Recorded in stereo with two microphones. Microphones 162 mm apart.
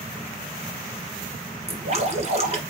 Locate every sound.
1.7 s dripping: 40° right (ahead or behind), 1.6 m